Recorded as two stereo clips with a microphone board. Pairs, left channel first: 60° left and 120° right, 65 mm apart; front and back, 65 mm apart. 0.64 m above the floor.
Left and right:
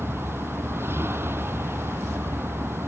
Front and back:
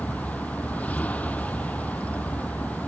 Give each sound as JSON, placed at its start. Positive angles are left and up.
{"t": 0.0, "sound": "a vehicle", "azimuth_deg": -65}